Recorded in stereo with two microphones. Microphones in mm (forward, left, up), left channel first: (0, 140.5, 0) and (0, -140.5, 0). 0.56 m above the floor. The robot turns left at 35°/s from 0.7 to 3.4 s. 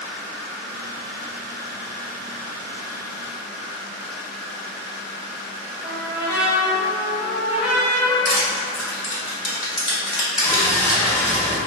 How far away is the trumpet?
About 1.9 m.